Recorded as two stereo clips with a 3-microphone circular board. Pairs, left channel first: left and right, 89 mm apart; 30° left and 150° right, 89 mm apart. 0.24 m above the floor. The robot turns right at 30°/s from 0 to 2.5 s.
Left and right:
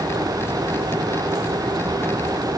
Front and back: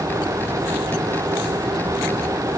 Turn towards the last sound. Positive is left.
No sound to turn to.